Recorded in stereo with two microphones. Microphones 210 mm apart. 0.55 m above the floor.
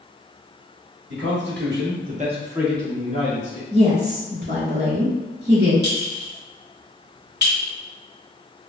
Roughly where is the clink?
Right.